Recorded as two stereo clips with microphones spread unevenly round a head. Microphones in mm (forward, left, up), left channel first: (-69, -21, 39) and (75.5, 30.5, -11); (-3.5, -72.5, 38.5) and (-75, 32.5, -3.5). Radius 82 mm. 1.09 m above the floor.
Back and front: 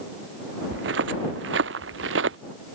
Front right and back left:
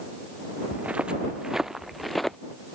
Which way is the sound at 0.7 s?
40° left.